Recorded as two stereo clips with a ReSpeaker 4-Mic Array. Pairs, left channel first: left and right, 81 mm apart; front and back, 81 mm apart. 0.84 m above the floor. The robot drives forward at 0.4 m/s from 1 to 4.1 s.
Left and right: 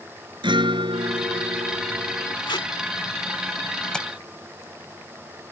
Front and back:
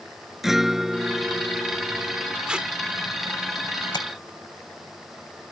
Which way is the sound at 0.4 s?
95° right.